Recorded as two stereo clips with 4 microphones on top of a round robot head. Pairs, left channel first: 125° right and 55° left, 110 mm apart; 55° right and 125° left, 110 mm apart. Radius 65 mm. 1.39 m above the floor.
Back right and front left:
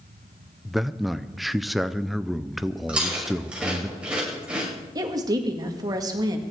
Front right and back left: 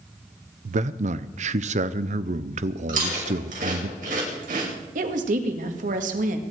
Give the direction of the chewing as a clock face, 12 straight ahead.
8 o'clock.